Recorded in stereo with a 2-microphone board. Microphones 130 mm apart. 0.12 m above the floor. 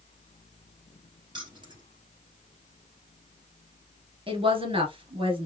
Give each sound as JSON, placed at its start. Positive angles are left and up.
{"t": 1.3, "sound": "keys jangling", "side_deg": -35, "distance_m": 1.7}
{"t": 4.3, "sound": "a woman speaking", "side_deg": -40, "distance_m": 1.5}